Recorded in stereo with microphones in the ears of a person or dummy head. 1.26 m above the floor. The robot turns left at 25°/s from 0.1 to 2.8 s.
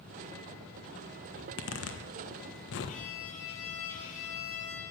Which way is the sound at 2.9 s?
50° left (ahead or behind).